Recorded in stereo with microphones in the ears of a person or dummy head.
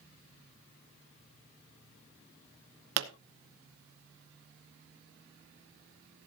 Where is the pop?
85° right, 1.0 m.